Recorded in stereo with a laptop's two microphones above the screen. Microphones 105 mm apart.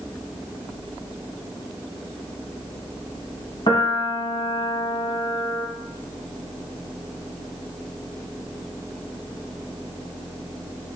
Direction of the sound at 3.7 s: 50° left (ahead or behind).